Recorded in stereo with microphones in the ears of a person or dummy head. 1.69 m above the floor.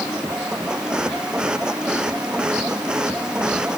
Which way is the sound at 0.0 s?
5° right (ahead or behind).